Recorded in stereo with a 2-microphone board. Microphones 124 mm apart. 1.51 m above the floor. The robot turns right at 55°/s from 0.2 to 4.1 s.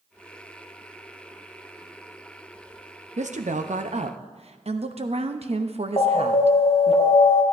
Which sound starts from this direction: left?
An alarm, at 6.0 s.